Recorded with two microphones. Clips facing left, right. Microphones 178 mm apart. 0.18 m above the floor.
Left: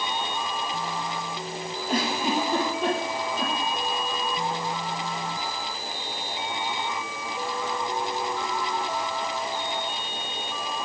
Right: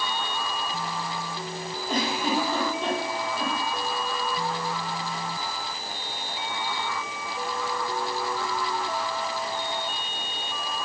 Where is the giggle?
10° left (ahead or behind), 4.5 m.